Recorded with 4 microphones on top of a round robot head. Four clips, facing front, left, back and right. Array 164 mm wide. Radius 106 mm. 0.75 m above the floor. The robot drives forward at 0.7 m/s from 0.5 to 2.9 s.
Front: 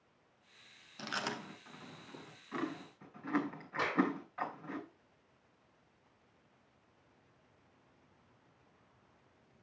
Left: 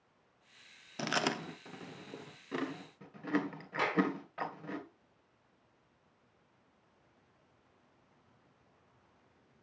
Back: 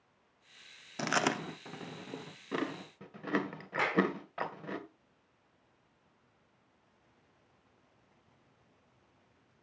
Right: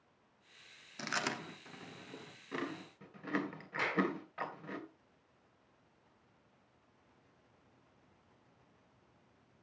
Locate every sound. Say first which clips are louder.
1.0 s chewing: left 5 dB, back 9 dB; 145° left, 0.7 m; by 4.8 s 170° left, 1.9 m
3.8 s a clap: left 3 dB, back 2 dB; 150° left, 4.5 m